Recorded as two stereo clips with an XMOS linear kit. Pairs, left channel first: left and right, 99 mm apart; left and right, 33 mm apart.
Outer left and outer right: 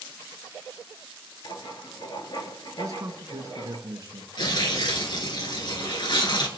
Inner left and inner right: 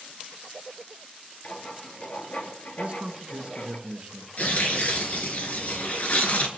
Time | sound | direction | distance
1.4 | writing | 45° left (ahead or behind) | 2 m
2.8 | a man speaking | 40° right (ahead or behind) | 2.5 m
4.4 | tearing paper | 50° left (ahead or behind) | 3 m